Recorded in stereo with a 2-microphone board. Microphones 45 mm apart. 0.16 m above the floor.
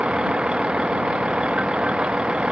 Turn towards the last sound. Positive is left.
turn(degrees=-25)  # may be behind; listen again after turning